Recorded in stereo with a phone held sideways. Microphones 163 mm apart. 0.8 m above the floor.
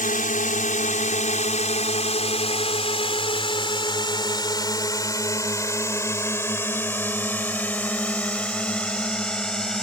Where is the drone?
55° left (ahead or behind); by 9.8 s 5° left (ahead or behind).